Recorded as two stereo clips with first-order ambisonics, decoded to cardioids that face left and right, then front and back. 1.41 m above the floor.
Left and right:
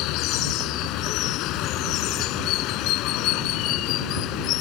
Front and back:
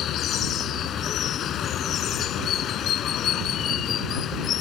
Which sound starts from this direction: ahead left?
Running water, at 0.0 s.